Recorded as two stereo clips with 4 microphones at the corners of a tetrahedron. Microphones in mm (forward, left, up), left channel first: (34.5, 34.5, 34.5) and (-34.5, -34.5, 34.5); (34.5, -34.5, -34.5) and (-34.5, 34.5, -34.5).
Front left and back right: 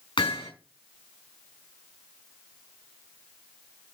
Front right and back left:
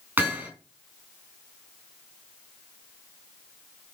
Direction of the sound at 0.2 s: 65° left.